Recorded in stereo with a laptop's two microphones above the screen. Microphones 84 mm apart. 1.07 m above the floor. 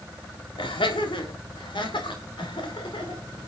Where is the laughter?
80° left, 2.5 m; by 3.2 s 75° left (ahead or behind), 4 m.